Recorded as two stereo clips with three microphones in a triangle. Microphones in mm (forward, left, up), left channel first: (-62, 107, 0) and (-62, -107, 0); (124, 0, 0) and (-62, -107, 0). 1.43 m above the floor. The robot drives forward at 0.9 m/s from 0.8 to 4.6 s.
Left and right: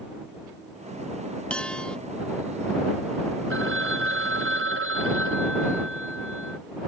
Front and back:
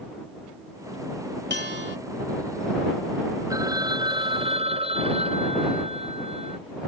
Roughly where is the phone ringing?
Right.